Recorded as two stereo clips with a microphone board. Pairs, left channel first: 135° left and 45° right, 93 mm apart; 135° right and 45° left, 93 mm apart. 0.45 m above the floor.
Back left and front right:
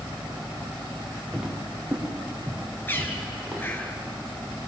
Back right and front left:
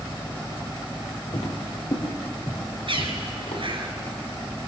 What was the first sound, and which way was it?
Footsteps, 125° right.